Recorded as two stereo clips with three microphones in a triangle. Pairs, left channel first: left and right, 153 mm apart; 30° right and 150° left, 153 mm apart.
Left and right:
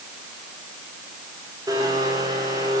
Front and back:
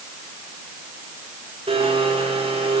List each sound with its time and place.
1.7 s a blender: 155° right, 5 m